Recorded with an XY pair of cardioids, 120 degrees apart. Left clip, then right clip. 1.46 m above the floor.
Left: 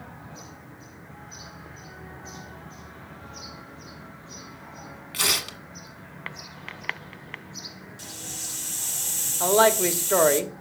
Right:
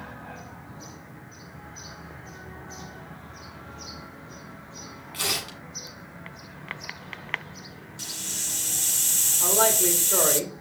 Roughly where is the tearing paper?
Ahead left.